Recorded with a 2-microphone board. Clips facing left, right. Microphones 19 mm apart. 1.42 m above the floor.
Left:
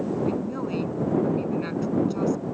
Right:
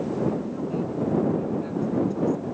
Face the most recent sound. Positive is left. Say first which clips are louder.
# even
turn(degrees=40)  # may be behind; listen again after turning